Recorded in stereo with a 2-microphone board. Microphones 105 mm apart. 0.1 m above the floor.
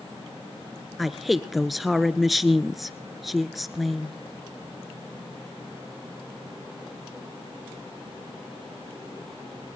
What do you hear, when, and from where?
1.0 s a woman speaking: centre (ahead or behind), 1.3 m